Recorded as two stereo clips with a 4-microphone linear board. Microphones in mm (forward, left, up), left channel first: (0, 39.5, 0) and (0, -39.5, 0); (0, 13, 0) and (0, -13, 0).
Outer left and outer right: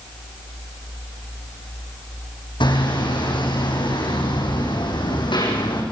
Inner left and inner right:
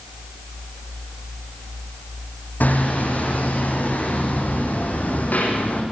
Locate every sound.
2.6 s hammering: 80° left, 8 m